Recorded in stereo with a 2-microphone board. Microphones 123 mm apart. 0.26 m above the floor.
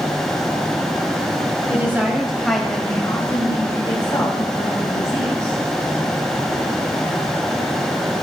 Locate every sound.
1.7 s a woman speaking: 20° right (ahead or behind), 1.9 m; by 5.6 s 45° left (ahead or behind), 3 m